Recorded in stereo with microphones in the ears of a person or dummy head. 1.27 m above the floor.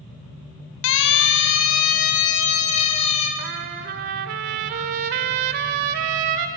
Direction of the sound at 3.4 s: 55° right (ahead or behind).